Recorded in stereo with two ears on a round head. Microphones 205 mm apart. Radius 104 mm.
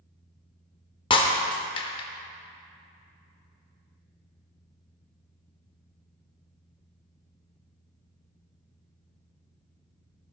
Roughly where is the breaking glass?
Left.